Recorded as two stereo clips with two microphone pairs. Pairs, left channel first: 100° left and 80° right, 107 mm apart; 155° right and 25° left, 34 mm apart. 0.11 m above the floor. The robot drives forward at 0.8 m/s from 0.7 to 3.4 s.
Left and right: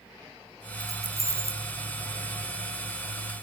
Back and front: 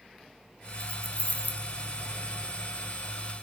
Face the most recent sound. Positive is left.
turn(degrees=-160)